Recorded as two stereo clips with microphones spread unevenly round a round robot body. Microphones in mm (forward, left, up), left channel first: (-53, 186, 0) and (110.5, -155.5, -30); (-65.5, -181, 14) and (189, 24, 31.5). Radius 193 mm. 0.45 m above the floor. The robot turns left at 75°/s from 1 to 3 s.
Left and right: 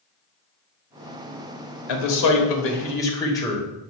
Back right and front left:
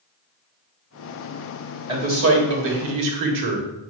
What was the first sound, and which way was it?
A man speaking, 115° left.